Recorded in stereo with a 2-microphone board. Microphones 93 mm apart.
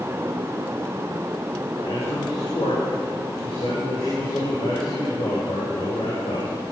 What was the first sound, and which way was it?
A man speaking, 75° left (ahead or behind).